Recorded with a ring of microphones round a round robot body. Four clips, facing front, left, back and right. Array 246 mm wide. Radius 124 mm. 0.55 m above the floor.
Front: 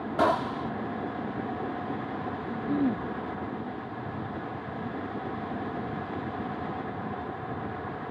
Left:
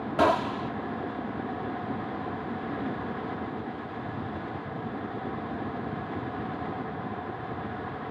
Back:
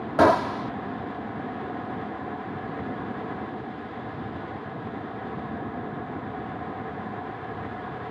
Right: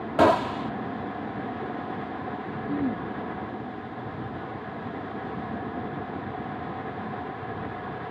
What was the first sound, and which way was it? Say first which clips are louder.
A gunshot: right 4 dB, back 6 dB; 145° right.